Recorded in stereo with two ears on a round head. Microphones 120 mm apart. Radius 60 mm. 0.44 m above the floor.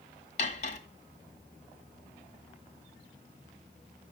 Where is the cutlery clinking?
55° left (ahead or behind), 1.5 m.